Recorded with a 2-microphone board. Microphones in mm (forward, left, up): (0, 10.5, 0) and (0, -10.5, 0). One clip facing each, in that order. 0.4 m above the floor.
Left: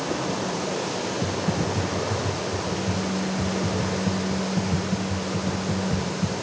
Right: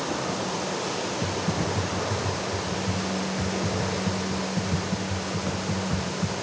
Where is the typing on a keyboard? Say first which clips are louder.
Left 2 dB; 15° right (ahead or behind), 2.5 m.